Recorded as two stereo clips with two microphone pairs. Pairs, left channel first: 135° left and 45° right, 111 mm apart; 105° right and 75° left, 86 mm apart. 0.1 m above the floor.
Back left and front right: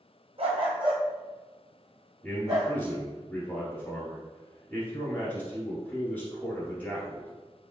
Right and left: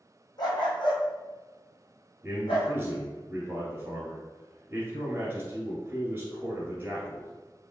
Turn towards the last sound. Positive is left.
turn(degrees=85)